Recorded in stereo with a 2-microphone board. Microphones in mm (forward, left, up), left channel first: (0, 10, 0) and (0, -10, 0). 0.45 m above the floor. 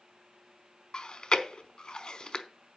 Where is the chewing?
35° left (ahead or behind), 0.9 m.